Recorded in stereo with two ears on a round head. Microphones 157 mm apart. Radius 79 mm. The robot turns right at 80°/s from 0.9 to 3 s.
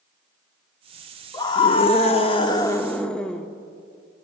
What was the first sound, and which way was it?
A scream, 40° left.